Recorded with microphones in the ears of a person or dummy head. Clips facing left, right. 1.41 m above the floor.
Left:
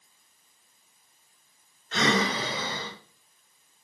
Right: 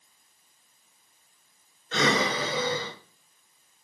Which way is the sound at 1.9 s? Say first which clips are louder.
Even; 85° right.